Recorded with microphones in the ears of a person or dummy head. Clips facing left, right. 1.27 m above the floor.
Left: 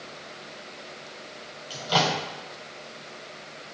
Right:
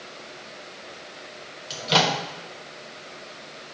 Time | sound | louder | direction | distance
1.7 | a microwave | right 2 dB | 30° right (ahead or behind) | 1.1 m